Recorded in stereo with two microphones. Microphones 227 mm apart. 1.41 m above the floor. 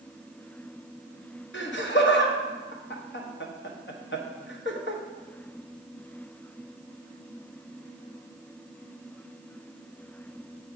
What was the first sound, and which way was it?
Laughter, 55° left (ahead or behind).